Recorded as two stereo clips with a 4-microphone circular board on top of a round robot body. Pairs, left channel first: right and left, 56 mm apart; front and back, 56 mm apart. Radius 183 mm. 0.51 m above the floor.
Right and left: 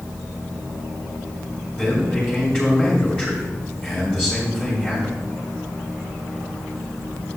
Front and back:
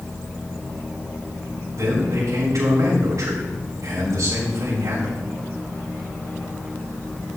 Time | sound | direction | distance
1.8 | a man speaking | 155° right | 3.5 m